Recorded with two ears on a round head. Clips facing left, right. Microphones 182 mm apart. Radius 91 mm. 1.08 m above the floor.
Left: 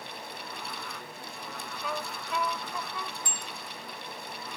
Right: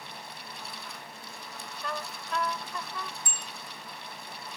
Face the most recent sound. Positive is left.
turn(degrees=-75)  # may be behind; listen again after turning